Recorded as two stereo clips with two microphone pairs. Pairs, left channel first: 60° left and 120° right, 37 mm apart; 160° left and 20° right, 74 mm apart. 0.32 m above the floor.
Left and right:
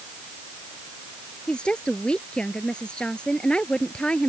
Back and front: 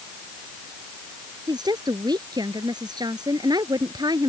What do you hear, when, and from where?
1.5 s a woman speaking: 5° right